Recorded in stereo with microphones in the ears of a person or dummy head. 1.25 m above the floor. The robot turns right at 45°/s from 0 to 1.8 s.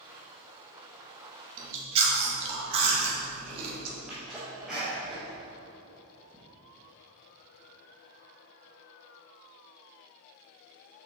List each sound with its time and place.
1.6 s chewing: 45° right (ahead or behind), 1.6 m; by 4.0 s 35° right (ahead or behind), 1.6 m
4.1 s a sneeze: centre (ahead or behind), 1.4 m